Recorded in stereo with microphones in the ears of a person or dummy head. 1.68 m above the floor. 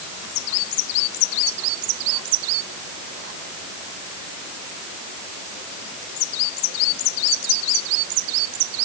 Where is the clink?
I don't hear a clink.